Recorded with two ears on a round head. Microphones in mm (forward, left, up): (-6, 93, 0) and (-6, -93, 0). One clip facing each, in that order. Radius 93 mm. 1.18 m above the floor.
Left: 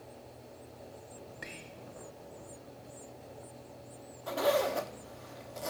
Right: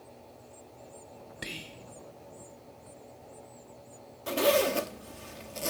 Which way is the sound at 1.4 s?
45° right (ahead or behind).